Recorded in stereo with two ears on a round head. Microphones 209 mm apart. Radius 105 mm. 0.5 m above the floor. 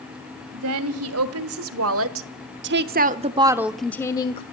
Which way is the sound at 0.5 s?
70° right (ahead or behind).